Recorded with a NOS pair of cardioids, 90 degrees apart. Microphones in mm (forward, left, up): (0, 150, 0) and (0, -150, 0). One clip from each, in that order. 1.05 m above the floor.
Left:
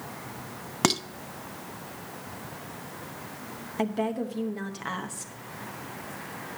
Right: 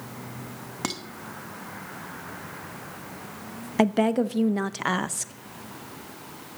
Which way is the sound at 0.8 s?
30° left.